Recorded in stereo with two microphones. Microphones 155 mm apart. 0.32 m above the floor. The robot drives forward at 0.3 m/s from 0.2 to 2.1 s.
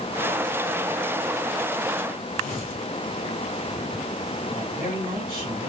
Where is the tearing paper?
45° right (ahead or behind), 3.5 m.